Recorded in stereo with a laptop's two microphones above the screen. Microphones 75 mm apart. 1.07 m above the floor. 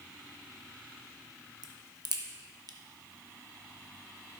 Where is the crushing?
No crushing in this recording.